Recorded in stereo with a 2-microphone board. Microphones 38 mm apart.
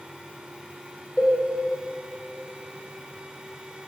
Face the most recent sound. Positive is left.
turn(degrees=30)  # may be behind; listen again after turning